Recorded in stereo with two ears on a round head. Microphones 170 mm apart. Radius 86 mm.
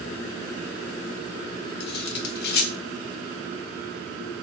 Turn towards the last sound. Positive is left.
turn(degrees=60)  # may be behind; listen again after turning